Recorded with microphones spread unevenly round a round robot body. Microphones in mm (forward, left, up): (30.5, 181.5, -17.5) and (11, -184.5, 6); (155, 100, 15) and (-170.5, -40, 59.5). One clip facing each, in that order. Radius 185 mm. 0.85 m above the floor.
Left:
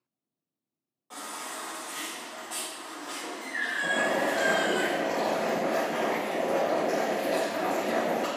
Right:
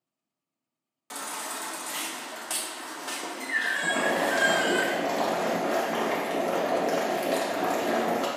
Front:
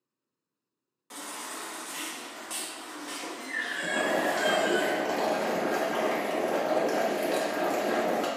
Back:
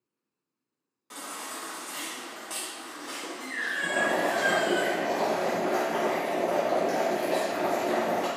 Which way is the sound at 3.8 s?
35° right.